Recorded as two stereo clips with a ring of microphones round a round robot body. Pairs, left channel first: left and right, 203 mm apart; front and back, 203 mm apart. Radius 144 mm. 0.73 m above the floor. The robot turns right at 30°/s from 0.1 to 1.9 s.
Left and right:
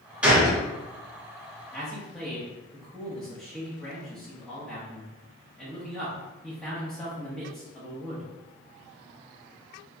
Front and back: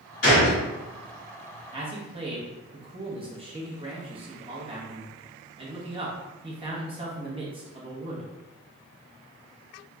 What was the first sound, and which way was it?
A gunshot, 5° right.